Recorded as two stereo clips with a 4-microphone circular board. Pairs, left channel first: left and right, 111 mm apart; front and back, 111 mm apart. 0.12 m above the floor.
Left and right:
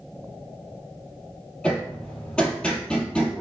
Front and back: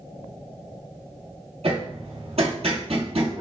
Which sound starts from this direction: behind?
Hammering, at 1.6 s.